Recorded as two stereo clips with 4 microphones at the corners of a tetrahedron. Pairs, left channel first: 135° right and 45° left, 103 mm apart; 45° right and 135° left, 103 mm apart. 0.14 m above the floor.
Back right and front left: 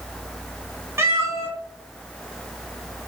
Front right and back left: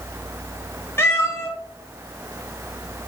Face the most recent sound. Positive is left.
turn(degrees=0)